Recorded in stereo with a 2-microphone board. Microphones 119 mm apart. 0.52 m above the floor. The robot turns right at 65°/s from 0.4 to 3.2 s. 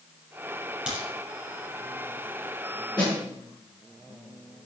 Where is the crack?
10° right (ahead or behind), 6 m; by 1.1 s 20° right (ahead or behind), 6 m.